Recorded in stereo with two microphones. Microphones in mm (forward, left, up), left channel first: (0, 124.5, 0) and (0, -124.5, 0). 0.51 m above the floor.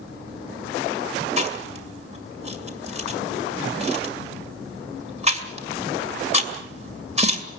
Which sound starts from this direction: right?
Chewing, at 1.4 s.